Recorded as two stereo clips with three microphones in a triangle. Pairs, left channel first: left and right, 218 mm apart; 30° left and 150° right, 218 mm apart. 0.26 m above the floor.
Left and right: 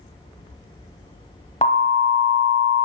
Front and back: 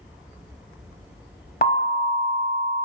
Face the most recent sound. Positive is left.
turn(degrees=45)